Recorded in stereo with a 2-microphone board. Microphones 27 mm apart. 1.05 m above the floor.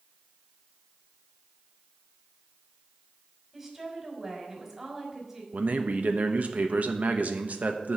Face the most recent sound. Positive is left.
turn(degrees=-65)  # may be behind; listen again after turning